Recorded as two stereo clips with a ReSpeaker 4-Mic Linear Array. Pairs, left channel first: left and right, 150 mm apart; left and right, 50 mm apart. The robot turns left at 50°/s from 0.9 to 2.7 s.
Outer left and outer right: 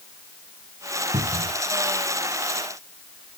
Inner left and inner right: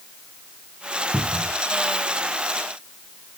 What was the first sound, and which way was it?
A cupboard door, 50° right (ahead or behind).